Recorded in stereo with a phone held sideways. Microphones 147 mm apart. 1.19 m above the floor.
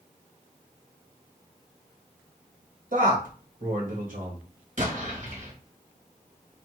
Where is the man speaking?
60° right (ahead or behind), 1.7 m.